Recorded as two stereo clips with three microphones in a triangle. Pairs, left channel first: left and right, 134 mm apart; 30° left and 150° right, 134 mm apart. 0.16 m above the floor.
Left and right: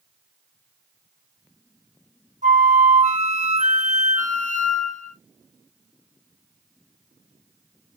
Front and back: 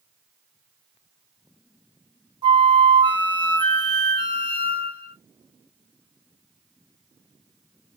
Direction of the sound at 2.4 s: 100° right.